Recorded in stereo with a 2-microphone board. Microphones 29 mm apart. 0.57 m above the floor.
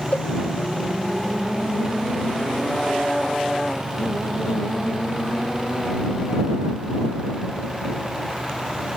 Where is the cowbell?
85° left.